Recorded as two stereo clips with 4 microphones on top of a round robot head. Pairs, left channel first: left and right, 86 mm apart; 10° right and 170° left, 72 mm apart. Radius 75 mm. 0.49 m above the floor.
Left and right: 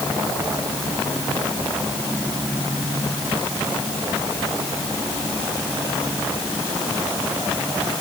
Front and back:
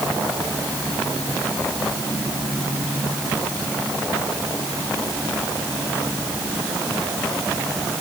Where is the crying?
No crying in this recording.